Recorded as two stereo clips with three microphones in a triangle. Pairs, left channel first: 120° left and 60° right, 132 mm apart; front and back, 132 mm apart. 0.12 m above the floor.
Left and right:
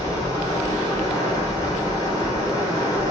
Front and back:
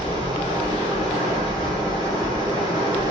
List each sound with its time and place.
0.0 s running water: 160° left, 1.4 m